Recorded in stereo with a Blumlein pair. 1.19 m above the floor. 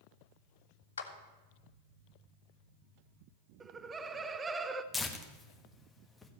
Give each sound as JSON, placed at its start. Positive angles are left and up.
{"t": 1.0, "sound": "a clap", "azimuth_deg": 70, "distance_m": 1.6}
{"t": 3.6, "sound": "laughter", "azimuth_deg": -15, "distance_m": 0.6}
{"t": 4.9, "sound": "tearing paper", "azimuth_deg": 10, "distance_m": 1.6}